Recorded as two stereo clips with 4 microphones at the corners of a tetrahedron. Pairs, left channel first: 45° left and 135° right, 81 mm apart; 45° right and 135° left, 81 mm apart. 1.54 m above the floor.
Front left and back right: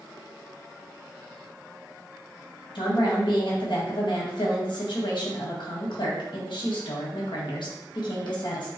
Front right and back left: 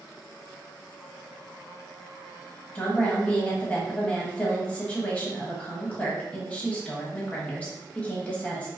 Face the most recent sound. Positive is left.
turn(degrees=30)